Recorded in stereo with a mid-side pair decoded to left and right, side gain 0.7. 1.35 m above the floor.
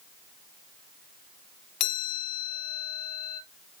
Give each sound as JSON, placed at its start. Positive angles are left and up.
{"t": 1.8, "sound": "a chime", "azimuth_deg": 70, "distance_m": 2.0}